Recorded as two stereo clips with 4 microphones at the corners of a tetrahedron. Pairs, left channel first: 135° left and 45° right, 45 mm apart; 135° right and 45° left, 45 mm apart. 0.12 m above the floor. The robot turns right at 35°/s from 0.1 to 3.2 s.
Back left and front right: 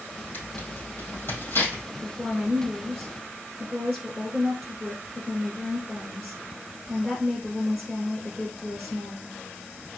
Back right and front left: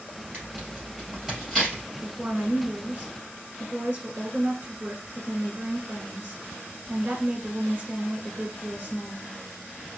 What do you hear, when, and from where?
0.3 s tearing paper: 95° left, 3 m; by 1.8 s 150° left, 3 m
2.0 s a woman speaking: 5° left, 1.5 m; by 9.3 s 45° left, 1.5 m